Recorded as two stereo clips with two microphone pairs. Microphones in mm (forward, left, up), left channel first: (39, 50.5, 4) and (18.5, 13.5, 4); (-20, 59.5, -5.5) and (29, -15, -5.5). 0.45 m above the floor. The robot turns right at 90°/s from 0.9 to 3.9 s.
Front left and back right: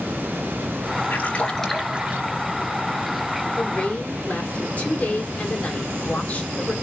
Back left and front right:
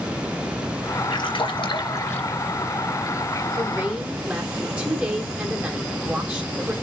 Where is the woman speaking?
15° right, 2 m; by 6.7 s 15° left, 2 m.